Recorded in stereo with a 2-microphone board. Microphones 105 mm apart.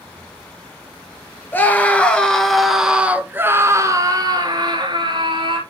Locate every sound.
1.5 s a scream: 20° left (ahead or behind), 2 m; by 5.6 s 50° right (ahead or behind), 2.5 m